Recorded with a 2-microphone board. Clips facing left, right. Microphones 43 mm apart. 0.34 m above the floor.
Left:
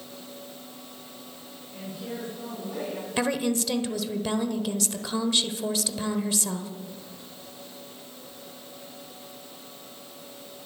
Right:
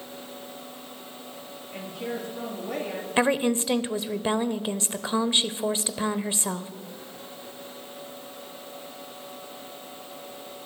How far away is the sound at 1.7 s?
About 7.5 m.